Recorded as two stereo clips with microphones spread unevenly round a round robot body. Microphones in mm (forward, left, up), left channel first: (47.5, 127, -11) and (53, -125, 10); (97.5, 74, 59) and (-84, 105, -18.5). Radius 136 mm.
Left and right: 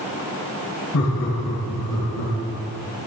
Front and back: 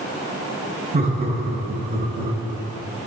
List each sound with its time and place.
0.9 s laughter: 125° left, 4 m; by 2.3 s 120° left, 5 m